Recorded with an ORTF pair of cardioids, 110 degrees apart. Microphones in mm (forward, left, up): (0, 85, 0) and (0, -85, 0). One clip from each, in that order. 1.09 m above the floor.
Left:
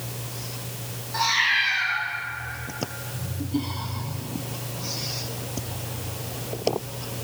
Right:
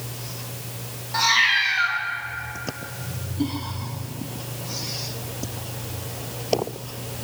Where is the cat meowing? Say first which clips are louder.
Right 3 dB; 25° right, 4.5 m.